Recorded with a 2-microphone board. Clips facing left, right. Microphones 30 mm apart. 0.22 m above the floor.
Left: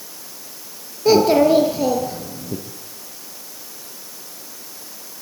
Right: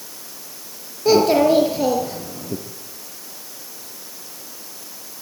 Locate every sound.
1.1 s a child speaking: 5° left (ahead or behind), 2.5 m; by 2.6 s 20° right (ahead or behind), 3 m